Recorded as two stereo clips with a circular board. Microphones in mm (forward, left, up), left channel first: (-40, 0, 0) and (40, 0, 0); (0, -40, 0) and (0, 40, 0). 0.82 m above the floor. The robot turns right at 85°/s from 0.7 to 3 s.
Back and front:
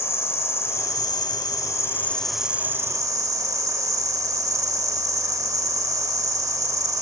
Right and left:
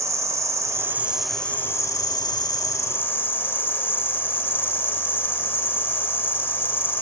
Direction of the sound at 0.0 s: 130° left.